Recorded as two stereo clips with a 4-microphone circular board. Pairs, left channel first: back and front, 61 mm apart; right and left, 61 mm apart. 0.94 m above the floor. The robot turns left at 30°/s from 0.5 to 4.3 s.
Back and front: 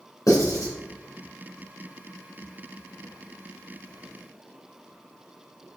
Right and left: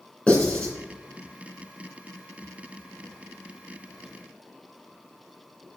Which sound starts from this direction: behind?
Writing, at 0.3 s.